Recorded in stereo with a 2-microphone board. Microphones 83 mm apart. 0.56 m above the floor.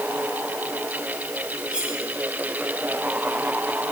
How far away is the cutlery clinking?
About 9.5 m.